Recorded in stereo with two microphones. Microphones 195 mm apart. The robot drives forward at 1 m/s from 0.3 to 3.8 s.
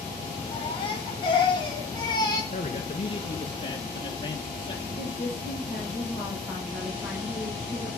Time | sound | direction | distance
0.5 | a baby crying | 30° left (ahead or behind) | 4.5 m
2.5 | a man speaking | 40° left (ahead or behind) | 1.5 m
5.0 | a woman speaking | centre (ahead or behind) | 7 m